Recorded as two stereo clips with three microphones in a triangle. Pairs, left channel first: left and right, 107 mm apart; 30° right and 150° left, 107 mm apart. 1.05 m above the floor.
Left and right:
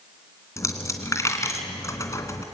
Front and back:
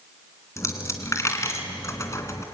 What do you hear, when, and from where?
0.6 s a dropped coin: 30° left, 2.5 m